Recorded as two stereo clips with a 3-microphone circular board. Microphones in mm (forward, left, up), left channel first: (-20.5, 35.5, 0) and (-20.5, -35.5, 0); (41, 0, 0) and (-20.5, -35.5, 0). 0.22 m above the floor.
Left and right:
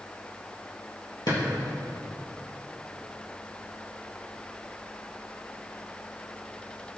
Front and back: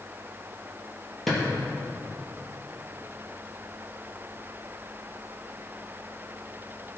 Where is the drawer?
115° left, 3.5 m.